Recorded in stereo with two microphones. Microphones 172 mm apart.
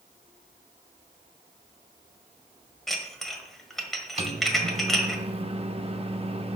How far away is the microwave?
About 0.7 m.